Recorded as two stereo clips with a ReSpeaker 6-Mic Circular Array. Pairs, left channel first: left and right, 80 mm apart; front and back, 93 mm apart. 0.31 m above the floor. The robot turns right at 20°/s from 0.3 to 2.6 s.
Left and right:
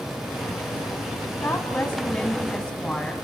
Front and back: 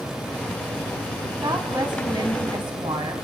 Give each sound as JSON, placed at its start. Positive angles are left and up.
{"t": 1.4, "sound": "a woman speaking", "azimuth_deg": 145, "distance_m": 3.0}